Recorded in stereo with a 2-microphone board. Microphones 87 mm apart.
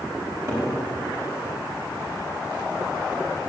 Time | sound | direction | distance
0.2 | a cupboard door | 30° right (ahead or behind) | 4.5 m